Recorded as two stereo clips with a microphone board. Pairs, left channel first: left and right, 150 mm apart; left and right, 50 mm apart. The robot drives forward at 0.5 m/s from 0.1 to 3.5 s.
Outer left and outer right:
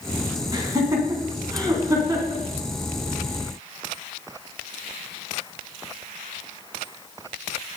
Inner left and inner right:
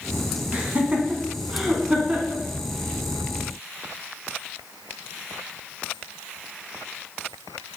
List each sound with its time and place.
0.5 s laughter: 25° right (ahead or behind), 1.7 m; by 2.4 s 20° right (ahead or behind), 2 m